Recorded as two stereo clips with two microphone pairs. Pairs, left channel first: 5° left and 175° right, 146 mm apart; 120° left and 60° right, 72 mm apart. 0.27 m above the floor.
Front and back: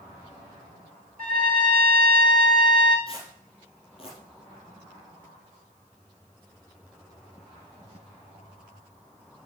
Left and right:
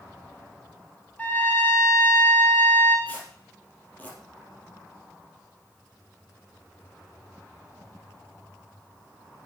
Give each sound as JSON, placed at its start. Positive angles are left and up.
{"t": 1.2, "sound": "a trumpet", "azimuth_deg": -170, "distance_m": 1.5}
{"t": 3.1, "sound": "tearing paper", "azimuth_deg": 60, "distance_m": 4.0}